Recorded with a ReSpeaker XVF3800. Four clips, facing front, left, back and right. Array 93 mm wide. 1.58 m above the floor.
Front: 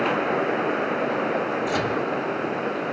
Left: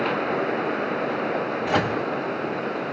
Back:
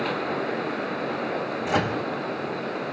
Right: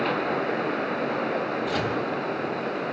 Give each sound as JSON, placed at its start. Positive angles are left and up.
{"t": 1.6, "sound": "a microwave", "azimuth_deg": 120, "distance_m": 1.1}